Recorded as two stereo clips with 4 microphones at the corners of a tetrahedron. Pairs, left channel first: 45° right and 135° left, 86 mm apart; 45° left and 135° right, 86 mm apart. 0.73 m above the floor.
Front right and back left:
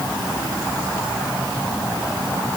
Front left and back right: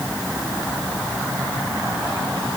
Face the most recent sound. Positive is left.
No sound to turn to.